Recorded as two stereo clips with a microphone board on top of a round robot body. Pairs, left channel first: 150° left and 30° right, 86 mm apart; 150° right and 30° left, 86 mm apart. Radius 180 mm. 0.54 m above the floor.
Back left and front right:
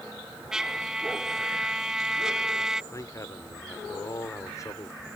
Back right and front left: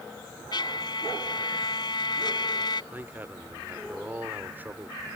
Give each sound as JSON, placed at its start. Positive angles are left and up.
{"t": 0.5, "sound": "a trumpet", "azimuth_deg": -115}
{"t": 2.9, "sound": "a man speaking", "azimuth_deg": 100}